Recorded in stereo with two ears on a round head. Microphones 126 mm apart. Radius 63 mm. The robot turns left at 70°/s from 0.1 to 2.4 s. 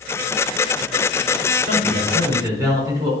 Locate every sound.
1.6 s a man speaking: 100° right, 5 m; by 3.1 s 155° right, 5 m